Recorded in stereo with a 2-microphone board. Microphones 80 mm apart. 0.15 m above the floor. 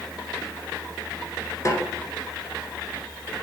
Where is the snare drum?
40° left (ahead or behind), 1.7 m.